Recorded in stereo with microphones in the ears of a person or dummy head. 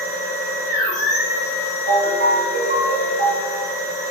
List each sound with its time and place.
0.0 s a machine running: 60° left (ahead or behind), 1.9 m
1.9 s a ringtone: 55° right (ahead or behind), 1.2 m